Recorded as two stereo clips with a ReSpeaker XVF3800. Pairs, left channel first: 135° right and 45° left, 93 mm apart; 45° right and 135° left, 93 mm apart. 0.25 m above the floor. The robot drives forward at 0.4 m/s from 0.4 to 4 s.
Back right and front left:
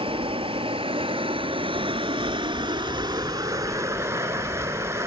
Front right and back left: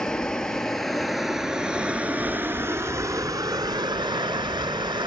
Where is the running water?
40° left, 1.6 m; by 5.1 s 105° left, 1.0 m.